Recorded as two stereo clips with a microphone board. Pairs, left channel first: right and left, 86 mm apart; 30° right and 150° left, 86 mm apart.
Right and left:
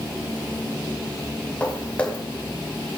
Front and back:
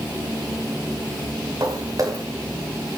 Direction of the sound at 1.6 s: 165° right.